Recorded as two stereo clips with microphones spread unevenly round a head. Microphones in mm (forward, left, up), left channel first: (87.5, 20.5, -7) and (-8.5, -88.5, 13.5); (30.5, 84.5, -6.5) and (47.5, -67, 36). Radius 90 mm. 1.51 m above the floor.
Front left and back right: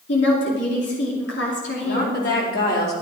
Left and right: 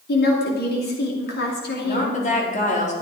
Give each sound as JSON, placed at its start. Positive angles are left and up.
{"t": 0.1, "sound": "a woman speaking", "azimuth_deg": 80, "distance_m": 2.5}
{"t": 1.8, "sound": "a woman speaking", "azimuth_deg": 55, "distance_m": 4.5}